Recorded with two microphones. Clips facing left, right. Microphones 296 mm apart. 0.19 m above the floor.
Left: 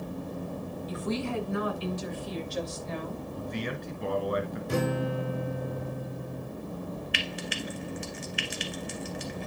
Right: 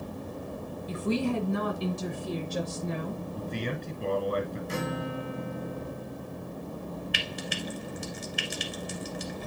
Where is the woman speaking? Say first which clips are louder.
Right 4 dB; 30° right (ahead or behind), 1.8 m; by 3.2 s 60° right (ahead or behind), 4 m.